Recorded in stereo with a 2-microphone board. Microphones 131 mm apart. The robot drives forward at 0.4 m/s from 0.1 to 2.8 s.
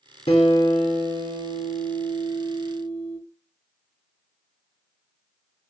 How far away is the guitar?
About 3 m.